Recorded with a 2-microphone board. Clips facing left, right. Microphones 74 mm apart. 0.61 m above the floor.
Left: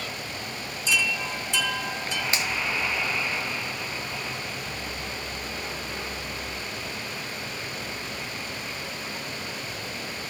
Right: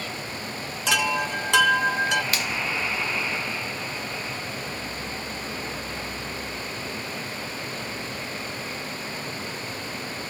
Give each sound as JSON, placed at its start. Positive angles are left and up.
{"t": 0.9, "sound": "a chime", "side_deg": -70, "distance_m": 0.7}
{"t": 2.3, "sound": "a finger snap", "side_deg": 25, "distance_m": 1.0}